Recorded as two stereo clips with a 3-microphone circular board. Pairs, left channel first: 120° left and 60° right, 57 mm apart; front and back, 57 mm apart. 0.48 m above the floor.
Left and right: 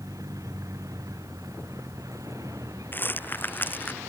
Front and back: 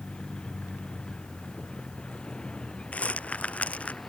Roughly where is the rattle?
Ahead left.